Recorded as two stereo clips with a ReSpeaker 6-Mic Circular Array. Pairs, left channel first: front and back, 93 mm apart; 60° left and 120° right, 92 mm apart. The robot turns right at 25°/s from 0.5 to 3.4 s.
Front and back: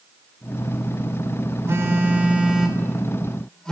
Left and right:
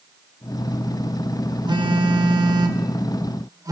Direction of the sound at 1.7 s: 125° right.